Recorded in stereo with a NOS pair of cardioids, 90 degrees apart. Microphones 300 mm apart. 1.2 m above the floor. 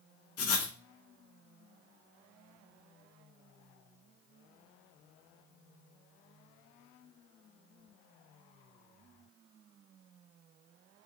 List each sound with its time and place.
0.4 s writing: 60° left, 1.0 m